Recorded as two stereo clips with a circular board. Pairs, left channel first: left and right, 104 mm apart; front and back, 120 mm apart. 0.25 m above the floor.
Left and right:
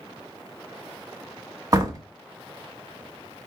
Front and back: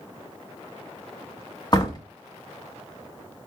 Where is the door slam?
45° right, 1.6 m.